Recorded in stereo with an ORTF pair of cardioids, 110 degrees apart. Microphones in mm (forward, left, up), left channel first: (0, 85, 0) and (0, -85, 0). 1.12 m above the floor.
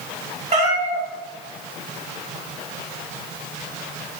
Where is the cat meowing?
45° right, 1.2 m.